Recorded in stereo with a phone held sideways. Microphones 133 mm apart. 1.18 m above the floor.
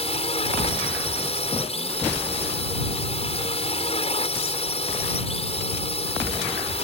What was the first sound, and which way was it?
A drone, 45° left (ahead or behind).